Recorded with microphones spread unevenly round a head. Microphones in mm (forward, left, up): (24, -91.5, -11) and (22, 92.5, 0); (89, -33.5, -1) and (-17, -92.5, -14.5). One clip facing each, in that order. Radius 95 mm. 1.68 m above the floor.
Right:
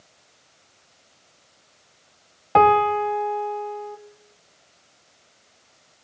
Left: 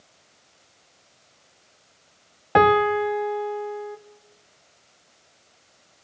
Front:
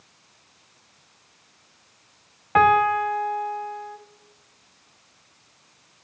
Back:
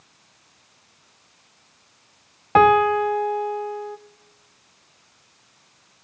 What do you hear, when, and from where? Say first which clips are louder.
2.5 s a piano: even, back 3 dB; 155° left, 0.7 m